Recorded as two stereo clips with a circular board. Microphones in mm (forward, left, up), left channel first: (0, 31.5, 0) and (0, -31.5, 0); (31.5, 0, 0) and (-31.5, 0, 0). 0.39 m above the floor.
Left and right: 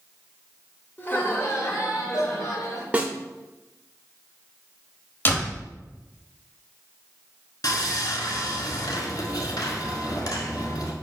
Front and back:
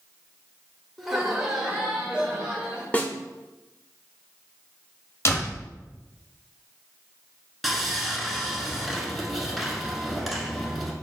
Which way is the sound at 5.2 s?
40° left.